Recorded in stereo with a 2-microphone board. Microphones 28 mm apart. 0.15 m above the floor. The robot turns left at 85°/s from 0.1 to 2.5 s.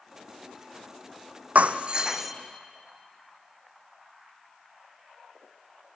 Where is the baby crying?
No baby crying in this recording.